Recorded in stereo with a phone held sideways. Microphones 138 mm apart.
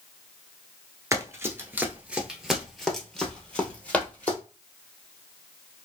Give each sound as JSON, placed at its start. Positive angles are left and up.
{"t": 1.1, "sound": "running footsteps", "side_deg": -25, "distance_m": 0.9}